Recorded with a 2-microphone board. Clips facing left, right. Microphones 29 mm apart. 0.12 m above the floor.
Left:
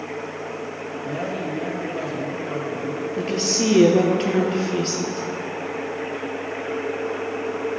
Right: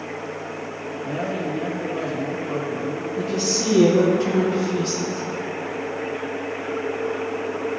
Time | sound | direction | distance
1.0 | a man speaking | 5° right (ahead or behind) | 1.5 m
3.2 | a woman speaking | 55° left (ahead or behind) | 2 m